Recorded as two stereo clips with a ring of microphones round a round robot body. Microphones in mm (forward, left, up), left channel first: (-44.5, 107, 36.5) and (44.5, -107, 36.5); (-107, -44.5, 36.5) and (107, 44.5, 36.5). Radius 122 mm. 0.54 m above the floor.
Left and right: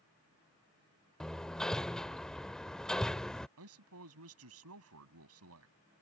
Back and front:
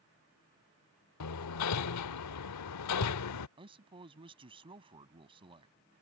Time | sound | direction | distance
1.2 | hammering | 160° right | ?
3.6 | a man speaking | 45° right | ?